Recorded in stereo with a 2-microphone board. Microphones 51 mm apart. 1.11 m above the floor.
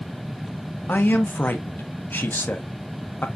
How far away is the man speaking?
About 0.6 m.